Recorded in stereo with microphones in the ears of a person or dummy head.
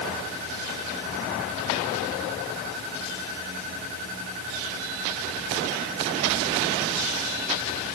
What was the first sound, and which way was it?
Only background noise.